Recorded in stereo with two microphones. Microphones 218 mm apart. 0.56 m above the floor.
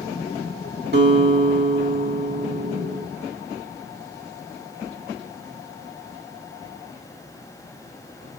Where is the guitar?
45° right (ahead or behind), 1.5 m.